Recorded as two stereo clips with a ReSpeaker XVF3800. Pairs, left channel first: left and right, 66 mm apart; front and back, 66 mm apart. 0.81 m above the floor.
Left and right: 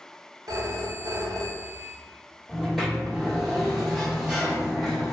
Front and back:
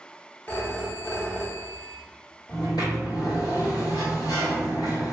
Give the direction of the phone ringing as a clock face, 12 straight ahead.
2 o'clock.